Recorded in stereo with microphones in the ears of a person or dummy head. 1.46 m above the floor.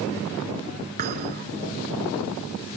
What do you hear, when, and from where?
1.0 s a thud: 55° right (ahead or behind)